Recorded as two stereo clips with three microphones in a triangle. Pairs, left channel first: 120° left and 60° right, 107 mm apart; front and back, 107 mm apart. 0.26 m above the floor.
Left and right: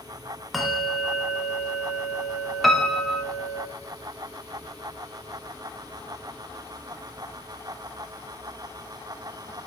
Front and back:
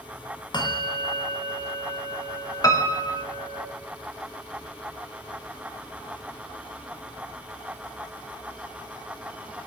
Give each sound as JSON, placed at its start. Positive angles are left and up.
{"t": 0.5, "sound": "a bell", "azimuth_deg": 30, "distance_m": 1.0}
{"t": 2.6, "sound": "a piano", "azimuth_deg": 30, "distance_m": 0.7}